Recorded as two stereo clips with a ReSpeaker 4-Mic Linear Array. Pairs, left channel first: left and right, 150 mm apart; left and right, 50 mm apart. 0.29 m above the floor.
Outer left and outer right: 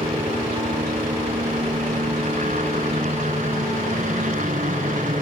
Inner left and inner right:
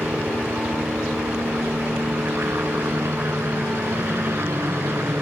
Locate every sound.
0.0 s a helicopter: 50° right (ahead or behind); by 5.2 s 60° right (ahead or behind)